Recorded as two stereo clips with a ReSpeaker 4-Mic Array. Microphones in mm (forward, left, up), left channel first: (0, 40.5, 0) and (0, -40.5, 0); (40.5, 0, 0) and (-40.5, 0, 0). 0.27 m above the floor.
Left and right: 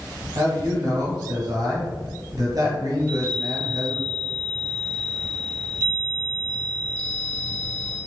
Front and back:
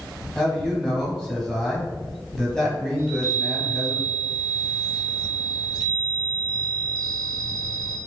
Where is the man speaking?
80° right, 1.5 m.